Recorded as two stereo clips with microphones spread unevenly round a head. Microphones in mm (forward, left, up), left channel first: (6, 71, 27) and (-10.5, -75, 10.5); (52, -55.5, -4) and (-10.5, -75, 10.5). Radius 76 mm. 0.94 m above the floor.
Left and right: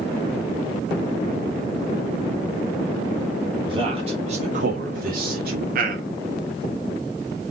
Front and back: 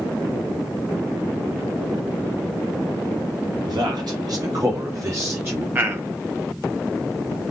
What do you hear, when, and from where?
3.7 s a man speaking: 150° right, 2 m; by 5.7 s 100° right, 1.9 m
5.8 s a man speaking: 100° right, 1.1 m